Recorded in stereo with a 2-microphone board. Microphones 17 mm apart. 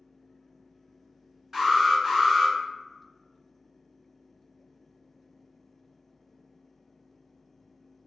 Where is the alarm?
15° right (ahead or behind), 1.5 m.